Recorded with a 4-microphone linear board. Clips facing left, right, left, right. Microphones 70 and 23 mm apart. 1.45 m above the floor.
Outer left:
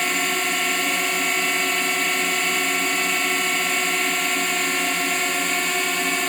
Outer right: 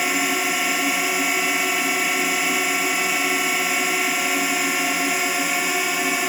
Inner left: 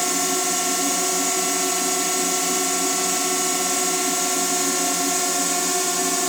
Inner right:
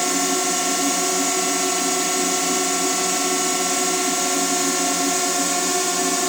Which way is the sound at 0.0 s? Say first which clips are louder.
Outer right 1 dB, inner right 2 dB; 5° right (ahead or behind).